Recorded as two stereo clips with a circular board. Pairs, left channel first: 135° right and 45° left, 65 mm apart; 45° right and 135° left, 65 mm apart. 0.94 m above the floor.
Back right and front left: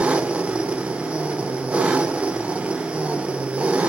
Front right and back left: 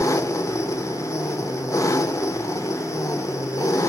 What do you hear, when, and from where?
0.0 s an engine running: 25° right, 0.9 m